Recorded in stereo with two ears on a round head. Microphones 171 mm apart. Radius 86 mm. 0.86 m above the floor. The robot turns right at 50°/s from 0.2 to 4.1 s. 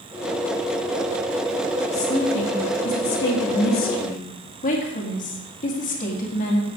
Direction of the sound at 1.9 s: 20° left.